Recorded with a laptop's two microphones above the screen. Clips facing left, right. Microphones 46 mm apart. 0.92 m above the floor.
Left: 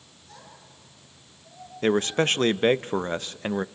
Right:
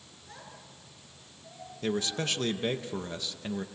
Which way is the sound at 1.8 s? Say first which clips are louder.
Left 9 dB; 45° left (ahead or behind).